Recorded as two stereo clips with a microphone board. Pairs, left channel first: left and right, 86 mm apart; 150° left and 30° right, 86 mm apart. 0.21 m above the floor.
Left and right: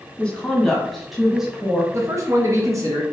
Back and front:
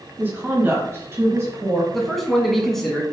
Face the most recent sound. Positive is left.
turn(degrees=-125)